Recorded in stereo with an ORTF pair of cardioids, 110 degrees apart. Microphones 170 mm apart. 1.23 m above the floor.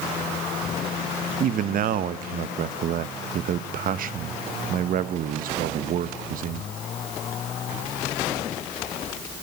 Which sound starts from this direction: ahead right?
A man speaking, at 1.4 s.